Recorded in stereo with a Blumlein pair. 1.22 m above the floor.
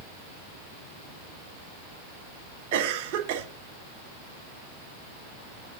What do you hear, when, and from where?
2.7 s a cough: 45° right, 1.6 m